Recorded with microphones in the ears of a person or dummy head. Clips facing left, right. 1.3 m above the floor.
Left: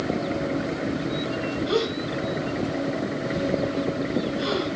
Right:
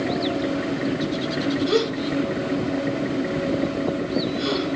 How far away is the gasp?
About 3.5 m.